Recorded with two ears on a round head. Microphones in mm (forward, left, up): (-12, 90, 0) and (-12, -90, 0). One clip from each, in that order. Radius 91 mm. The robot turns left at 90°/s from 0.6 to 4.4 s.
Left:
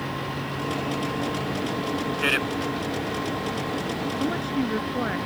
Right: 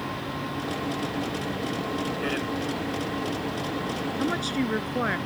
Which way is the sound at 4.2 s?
80° right.